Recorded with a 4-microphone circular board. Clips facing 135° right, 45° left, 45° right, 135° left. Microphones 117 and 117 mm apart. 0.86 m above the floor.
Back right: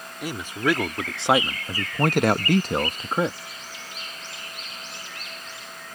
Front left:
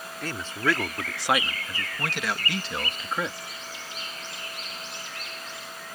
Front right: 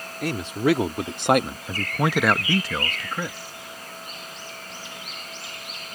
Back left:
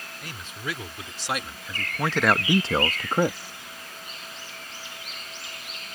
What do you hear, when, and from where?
0.2 s a man speaking: 55° right; by 3.4 s 165° left